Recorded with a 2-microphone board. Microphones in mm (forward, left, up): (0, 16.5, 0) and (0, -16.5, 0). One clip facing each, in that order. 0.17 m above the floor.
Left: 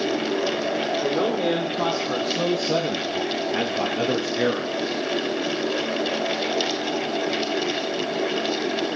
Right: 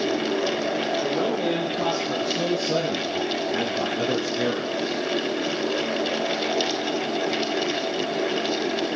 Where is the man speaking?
50° left (ahead or behind), 5.5 m; by 5.0 s 45° left (ahead or behind), 1.7 m.